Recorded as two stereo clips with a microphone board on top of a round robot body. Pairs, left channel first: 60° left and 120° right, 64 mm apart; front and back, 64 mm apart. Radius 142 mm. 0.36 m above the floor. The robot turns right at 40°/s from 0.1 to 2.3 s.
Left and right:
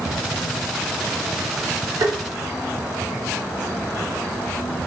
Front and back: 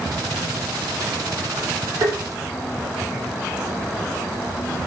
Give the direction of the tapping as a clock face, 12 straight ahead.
5 o'clock.